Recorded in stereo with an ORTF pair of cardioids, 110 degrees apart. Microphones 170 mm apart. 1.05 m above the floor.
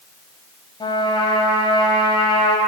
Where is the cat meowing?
I don't hear a cat meowing.